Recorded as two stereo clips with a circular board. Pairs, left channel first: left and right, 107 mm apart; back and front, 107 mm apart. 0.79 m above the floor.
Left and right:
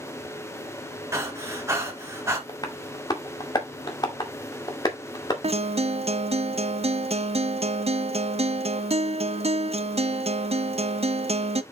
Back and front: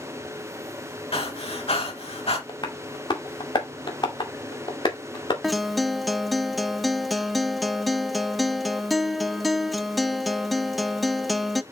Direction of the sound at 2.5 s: 140° left.